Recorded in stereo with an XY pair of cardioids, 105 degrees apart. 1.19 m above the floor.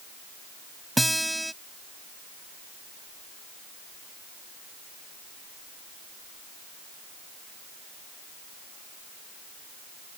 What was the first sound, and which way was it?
A guitar, 5° right.